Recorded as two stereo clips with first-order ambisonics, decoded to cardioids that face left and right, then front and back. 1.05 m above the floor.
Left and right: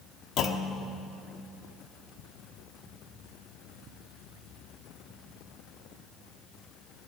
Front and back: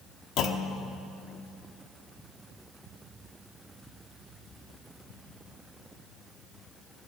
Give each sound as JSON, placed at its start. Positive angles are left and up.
{"t": 0.4, "sound": "a clunk", "azimuth_deg": 40, "distance_m": 1.0}